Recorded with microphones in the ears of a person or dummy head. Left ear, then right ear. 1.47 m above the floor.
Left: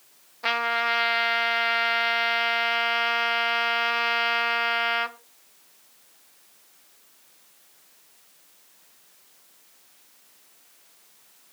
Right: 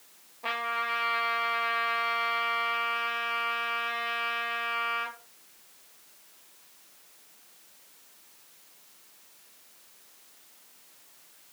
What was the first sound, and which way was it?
A trumpet, 55° left (ahead or behind).